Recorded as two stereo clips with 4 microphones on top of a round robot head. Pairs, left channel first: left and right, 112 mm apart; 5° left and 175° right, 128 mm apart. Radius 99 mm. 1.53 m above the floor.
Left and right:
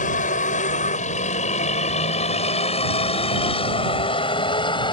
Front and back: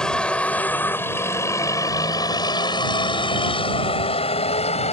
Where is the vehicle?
90° left; by 4.9 s 45° left.